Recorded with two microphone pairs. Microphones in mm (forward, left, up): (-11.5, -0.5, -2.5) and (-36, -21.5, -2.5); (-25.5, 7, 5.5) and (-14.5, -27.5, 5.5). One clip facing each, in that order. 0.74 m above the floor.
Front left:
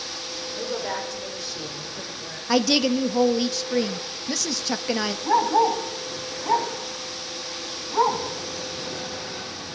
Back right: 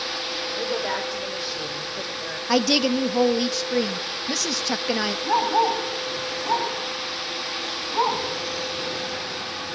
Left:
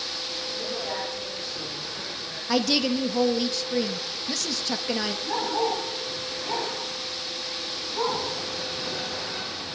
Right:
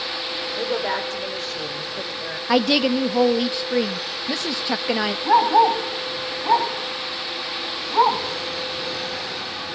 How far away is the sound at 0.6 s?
About 3 m.